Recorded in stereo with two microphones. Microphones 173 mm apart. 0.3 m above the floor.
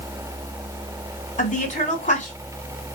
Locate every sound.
1.4 s a woman speaking: 50° left (ahead or behind), 2.5 m